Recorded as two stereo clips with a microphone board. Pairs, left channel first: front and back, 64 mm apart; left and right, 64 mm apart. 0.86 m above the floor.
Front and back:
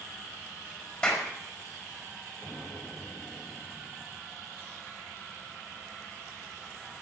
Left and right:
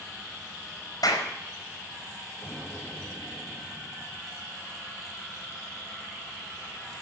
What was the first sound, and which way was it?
A clap, 75° left.